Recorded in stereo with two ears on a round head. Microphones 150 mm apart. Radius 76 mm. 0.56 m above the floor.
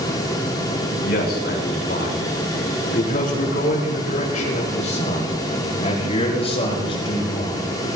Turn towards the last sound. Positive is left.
turn(degrees=30)  # may be behind; listen again after turning